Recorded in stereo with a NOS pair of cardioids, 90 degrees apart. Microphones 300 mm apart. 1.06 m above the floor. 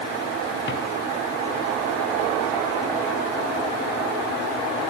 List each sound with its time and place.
0.7 s a drawer: 40° left, 3 m